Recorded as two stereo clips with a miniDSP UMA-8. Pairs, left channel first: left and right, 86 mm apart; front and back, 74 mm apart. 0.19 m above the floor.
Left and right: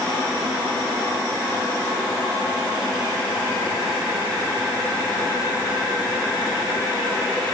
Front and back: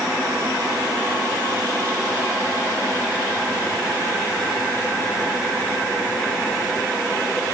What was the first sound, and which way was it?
Only background noise.